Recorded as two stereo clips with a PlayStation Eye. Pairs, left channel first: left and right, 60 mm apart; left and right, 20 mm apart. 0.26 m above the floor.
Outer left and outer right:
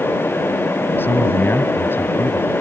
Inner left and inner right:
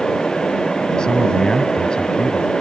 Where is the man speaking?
40° left (ahead or behind).